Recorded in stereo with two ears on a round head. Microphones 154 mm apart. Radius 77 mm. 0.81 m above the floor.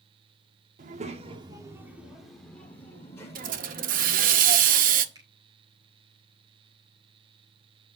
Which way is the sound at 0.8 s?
50° right (ahead or behind).